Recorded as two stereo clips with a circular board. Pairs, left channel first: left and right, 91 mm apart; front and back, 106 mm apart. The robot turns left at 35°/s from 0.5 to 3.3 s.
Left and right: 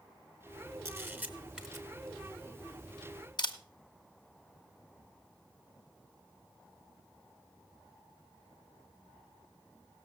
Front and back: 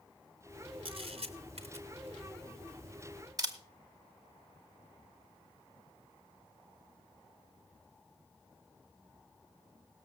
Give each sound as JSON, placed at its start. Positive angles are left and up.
{"t": 0.8, "sound": "a camera shutter", "azimuth_deg": -145, "distance_m": 1.4}